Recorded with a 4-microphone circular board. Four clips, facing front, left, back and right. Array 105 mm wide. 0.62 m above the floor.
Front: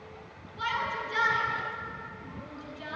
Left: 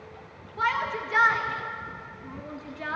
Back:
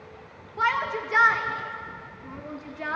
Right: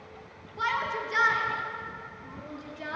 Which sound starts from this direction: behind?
A shout, at 0.6 s.